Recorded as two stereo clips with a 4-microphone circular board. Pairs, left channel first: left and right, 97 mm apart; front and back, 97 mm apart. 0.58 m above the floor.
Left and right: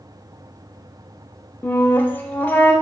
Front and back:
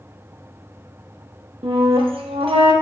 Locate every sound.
1.6 s a flute: 160° left, 0.5 m